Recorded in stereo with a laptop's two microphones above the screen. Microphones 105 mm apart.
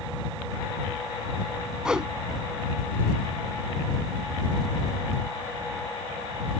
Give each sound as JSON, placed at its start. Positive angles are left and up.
{"t": 1.9, "sound": "a whoosh", "side_deg": -5}